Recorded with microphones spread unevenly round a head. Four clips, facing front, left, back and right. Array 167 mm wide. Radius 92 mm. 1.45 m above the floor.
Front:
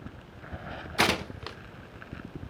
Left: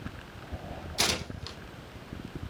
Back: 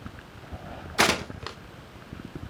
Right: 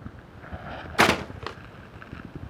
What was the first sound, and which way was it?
Tearing paper, 105° right.